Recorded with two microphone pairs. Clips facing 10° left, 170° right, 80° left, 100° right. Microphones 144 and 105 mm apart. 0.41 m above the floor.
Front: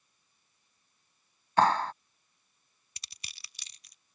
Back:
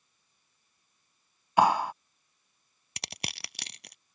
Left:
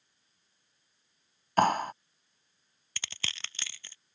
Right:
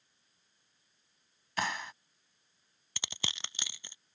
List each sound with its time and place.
1.6 s a clap: 115° left
3.0 s crushing: 170° right